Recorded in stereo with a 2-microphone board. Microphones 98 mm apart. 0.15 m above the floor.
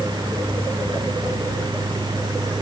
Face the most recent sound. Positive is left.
No sound to turn to.